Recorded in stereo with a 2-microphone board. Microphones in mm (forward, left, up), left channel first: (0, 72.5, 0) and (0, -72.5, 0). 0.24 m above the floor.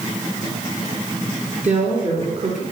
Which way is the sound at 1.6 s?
55° right (ahead or behind).